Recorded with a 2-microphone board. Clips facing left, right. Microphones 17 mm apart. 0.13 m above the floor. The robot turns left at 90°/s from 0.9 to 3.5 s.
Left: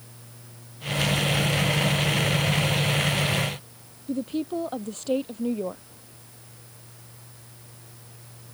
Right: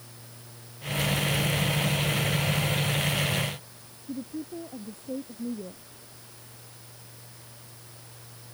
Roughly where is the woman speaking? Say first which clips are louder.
Left 8 dB; left.